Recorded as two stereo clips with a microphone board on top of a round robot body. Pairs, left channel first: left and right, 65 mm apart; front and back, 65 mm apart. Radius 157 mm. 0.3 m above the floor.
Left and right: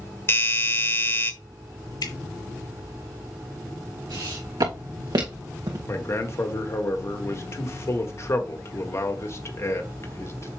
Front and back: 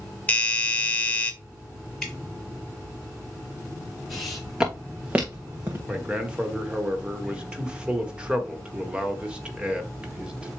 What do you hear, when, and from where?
0.3 s a doorbell: 55° left, 1.6 m
2.0 s dripping: 85° left, 2.5 m
4.1 s footsteps: 90° right, 2.5 m; by 5.8 s 120° right, 2 m
5.9 s a man speaking: 110° left, 1.7 m